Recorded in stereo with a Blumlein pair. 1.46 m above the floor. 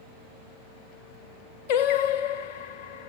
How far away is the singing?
About 1.1 m.